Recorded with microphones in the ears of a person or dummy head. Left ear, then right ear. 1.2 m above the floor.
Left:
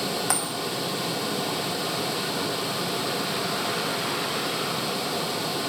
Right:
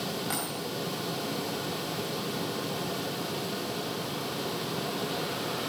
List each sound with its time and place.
0.3 s a dropped coin: 45° left (ahead or behind), 1.5 m